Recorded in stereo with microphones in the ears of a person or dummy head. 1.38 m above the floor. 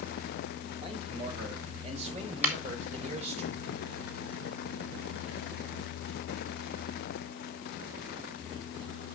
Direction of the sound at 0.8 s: 40° right (ahead or behind).